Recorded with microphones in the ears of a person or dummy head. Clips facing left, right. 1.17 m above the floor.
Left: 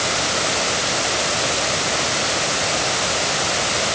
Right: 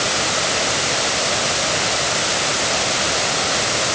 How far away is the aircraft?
I don't hear an aircraft.